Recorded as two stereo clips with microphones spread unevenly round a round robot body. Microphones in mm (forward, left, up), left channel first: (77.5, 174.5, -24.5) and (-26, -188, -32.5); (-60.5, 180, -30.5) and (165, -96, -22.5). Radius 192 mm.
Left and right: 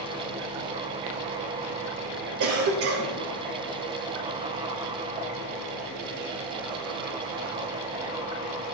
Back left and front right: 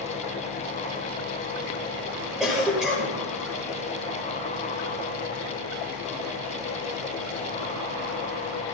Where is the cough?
140° right, 1.7 m.